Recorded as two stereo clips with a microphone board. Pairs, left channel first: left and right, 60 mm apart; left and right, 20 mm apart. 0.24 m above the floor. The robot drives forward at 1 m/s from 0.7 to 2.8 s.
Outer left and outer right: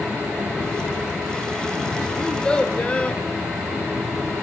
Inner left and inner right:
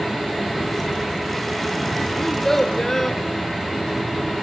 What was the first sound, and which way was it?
A child speaking, 15° left (ahead or behind).